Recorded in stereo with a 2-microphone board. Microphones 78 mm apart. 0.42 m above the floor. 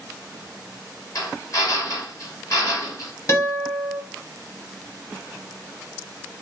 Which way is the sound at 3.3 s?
50° left (ahead or behind).